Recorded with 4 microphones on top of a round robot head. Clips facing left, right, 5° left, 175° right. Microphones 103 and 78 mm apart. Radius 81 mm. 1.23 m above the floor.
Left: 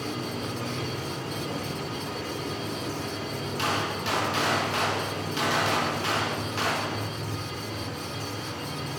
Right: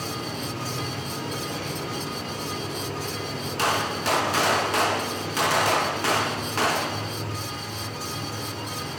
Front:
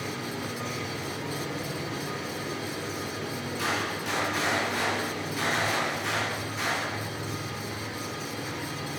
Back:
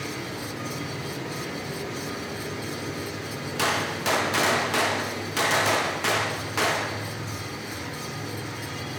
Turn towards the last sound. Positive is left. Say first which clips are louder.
# right 5 dB, back 5 dB
turn(degrees=-145)